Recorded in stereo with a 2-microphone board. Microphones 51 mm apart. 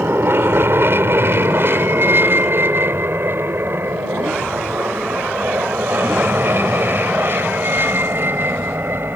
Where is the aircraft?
45° right (ahead or behind).